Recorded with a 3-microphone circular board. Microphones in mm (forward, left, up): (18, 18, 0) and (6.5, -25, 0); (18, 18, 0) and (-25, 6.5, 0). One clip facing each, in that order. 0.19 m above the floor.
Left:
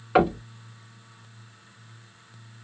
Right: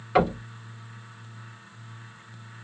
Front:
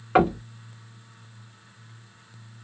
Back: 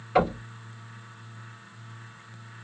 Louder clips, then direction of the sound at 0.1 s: Left 2 dB, front 3 dB; 5° left.